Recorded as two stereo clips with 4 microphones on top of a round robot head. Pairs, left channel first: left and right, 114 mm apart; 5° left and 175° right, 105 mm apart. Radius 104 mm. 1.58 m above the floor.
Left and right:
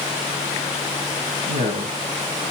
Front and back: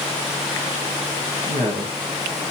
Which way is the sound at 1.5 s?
130° right.